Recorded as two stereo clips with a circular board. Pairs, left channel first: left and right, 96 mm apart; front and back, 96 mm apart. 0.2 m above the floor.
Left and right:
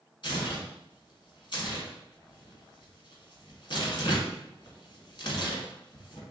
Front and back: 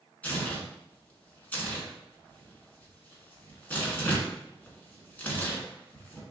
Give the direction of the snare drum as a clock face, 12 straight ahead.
I don't hear a snare drum.